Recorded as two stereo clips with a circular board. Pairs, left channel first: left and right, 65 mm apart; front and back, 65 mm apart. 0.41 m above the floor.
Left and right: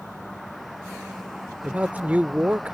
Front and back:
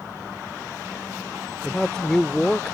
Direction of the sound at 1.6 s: 65° right.